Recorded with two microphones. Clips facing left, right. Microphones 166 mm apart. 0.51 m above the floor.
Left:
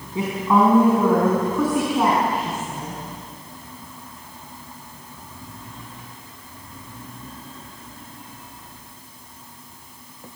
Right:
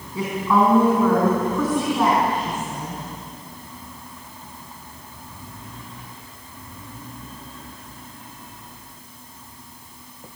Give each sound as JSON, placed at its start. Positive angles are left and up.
{"t": 0.1, "sound": "a woman speaking", "side_deg": 20, "distance_m": 4.0}